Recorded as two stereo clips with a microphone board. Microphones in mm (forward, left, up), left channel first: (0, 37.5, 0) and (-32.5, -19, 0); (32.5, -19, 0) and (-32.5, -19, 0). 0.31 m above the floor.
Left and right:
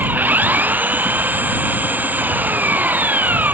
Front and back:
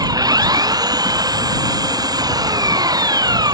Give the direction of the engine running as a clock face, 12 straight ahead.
6 o'clock.